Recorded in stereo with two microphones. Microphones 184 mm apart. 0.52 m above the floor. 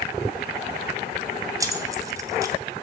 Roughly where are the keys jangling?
Centre.